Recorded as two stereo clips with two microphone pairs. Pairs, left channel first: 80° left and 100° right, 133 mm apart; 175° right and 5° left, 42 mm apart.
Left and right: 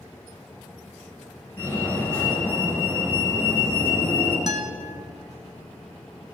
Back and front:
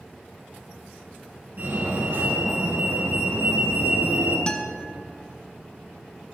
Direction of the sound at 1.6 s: 10° left.